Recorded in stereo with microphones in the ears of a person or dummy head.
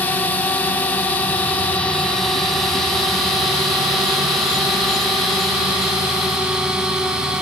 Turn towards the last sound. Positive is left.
turn(degrees=-5)  # may be behind; listen again after turning